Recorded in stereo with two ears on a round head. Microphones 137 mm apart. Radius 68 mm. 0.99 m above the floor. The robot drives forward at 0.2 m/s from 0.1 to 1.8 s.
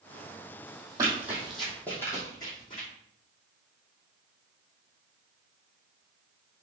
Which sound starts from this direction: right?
Running footsteps, at 1.0 s.